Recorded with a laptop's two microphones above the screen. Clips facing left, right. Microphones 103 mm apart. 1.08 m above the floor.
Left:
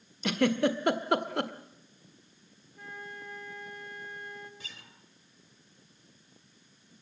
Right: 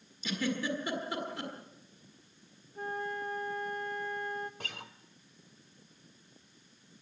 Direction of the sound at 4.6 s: 60° right (ahead or behind).